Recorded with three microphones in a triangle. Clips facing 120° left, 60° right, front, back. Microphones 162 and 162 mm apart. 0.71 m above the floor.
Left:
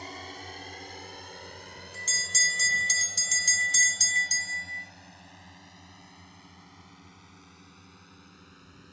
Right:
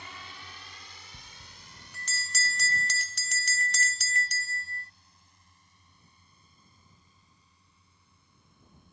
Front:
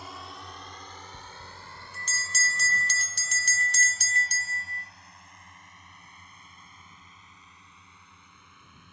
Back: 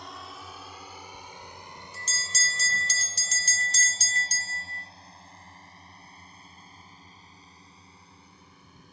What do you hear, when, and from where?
0.0 s a drone: 85° left; by 8.9 s 125° left
1.1 s a bell: 35° right